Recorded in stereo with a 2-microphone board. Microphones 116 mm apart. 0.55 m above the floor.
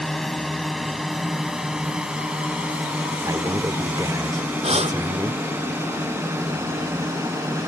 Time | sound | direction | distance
0.0 | a drone | 5° left (ahead or behind) | ?
3.2 | a man speaking | 30° right (ahead or behind) | ?
4.6 | breathing | 60° right (ahead or behind) | ?